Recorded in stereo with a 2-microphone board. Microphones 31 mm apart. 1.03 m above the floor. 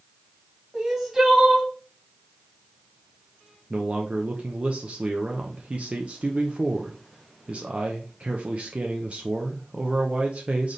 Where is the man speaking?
45° right (ahead or behind), 0.6 m.